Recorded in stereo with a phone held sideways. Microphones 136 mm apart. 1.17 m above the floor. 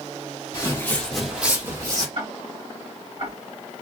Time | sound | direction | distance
0.5 | footsteps | 30° left (ahead or behind) | 1.3 m
2.1 | ticking | 55° right (ahead or behind) | 1.7 m